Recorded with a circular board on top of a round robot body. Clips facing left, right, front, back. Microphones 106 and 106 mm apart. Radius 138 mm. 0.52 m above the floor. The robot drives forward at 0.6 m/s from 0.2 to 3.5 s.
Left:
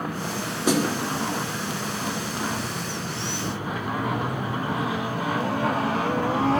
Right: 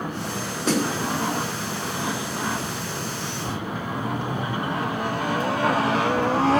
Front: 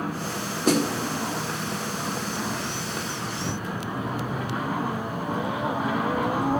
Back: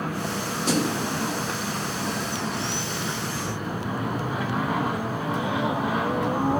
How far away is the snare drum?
About 2 m.